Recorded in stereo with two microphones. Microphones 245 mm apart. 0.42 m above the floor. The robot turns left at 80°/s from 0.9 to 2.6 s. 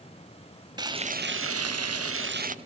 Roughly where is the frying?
Ahead.